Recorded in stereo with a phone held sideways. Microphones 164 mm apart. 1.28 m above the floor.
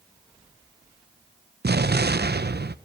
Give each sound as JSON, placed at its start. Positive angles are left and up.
{"t": 1.6, "sound": "an explosion", "side_deg": -85, "distance_m": 0.7}